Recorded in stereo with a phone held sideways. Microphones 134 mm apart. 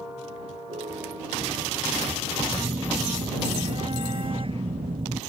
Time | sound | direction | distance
0.7 | a piano | 75° right (ahead or behind) | ?
2.5 | a phone buzzing | 45° right (ahead or behind) | ?